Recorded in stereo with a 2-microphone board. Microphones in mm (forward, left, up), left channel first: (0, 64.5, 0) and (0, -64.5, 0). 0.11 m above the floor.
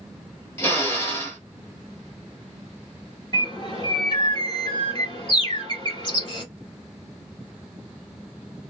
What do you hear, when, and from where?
0.6 s a drill: 20° left (ahead or behind), 1.1 m
3.3 s a bird: 35° left (ahead or behind), 1.8 m